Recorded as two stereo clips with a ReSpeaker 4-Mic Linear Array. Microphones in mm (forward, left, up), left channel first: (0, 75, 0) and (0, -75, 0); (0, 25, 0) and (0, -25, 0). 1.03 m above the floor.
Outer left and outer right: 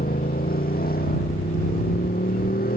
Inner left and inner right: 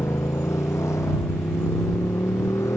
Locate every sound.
0.0 s a motorcycle: 85° left; by 2.8 s 80° left